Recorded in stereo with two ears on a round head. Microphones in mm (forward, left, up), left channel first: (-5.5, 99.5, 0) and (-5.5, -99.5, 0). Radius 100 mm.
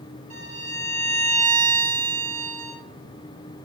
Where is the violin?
30° right (ahead or behind), 1.5 m.